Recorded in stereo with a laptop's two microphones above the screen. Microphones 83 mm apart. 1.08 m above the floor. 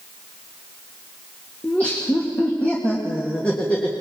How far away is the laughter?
About 1.8 m.